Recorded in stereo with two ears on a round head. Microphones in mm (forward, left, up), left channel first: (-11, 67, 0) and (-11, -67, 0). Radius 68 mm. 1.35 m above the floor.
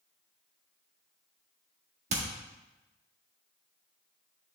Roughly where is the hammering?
Right.